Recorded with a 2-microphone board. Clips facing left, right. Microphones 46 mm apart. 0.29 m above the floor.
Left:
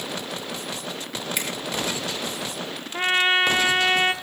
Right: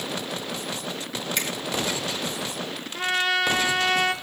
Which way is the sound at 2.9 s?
30° left (ahead or behind).